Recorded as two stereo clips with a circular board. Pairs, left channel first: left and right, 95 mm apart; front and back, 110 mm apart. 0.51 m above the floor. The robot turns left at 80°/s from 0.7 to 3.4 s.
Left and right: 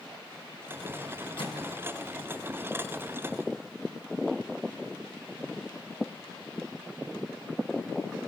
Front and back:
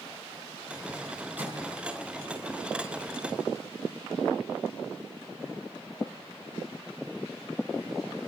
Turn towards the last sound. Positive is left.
turn(degrees=-55)